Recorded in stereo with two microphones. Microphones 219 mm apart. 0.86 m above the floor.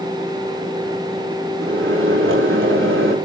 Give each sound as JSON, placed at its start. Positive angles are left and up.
{"t": 1.6, "sound": "a microwave", "side_deg": -70, "distance_m": 6.0}